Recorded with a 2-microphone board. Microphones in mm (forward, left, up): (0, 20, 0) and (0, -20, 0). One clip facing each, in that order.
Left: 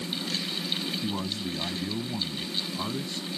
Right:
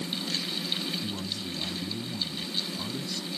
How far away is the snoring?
I don't hear snoring.